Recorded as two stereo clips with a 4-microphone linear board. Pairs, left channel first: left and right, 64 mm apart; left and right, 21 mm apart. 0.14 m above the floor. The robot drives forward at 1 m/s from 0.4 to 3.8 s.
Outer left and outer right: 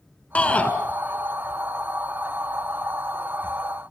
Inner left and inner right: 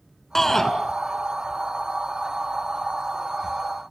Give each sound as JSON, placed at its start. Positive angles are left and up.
{"t": 0.3, "sound": "a shout", "side_deg": 20, "distance_m": 1.6}